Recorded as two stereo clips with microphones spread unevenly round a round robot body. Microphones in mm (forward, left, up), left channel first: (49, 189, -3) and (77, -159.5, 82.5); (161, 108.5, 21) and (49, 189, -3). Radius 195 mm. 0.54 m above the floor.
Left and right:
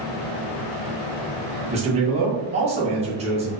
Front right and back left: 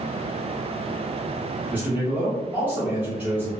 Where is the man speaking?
165° right, 0.7 m.